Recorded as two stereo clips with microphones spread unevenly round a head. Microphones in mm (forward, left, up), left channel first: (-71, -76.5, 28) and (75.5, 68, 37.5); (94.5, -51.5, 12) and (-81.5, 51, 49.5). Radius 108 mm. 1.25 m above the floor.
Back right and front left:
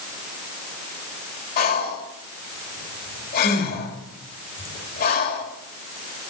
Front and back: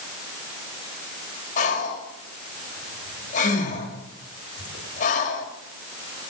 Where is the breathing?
90° right, 1.8 m.